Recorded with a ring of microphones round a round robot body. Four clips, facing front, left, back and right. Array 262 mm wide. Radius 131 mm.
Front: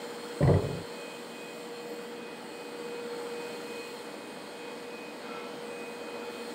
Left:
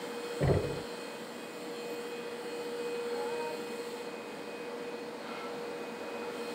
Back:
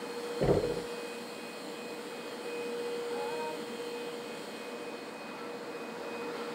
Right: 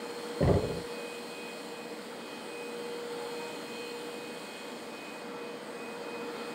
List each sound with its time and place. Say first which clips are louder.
0.4 s knocking: right 3 dB, front 1 dB; 25° right, 2.5 m